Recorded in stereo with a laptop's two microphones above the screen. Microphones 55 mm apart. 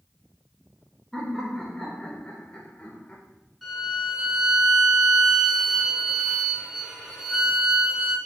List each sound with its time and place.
1.1 s laughter: 5° left (ahead or behind), 3.5 m; by 3.2 s 25° left (ahead or behind), 3.5 m
3.6 s a violin: centre (ahead or behind), 4 m